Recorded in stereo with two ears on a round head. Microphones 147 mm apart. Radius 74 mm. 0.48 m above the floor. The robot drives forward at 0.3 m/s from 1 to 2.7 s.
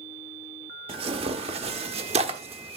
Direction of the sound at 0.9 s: 35° right (ahead or behind).